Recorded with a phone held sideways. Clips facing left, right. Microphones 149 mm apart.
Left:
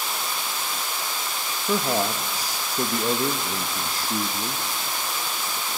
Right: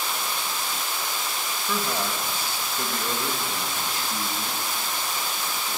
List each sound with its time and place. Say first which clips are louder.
1.7 s a man speaking: left 5 dB; 40° left (ahead or behind), 1.3 m